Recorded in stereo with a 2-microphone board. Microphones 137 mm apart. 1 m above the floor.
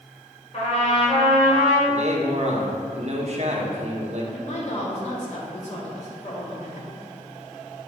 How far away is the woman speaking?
About 2.5 m.